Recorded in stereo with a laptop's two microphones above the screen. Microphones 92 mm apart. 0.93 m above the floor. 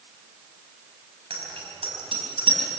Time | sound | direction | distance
1.3 | a bicycle bell | 85° right | 5 m